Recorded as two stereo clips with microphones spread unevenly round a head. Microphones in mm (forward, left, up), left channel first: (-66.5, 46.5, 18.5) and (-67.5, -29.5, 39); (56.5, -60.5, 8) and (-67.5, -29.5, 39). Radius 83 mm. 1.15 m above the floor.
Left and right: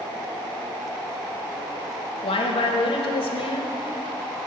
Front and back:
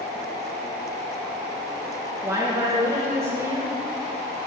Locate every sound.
2.2 s a woman speaking: 90° left, 0.5 m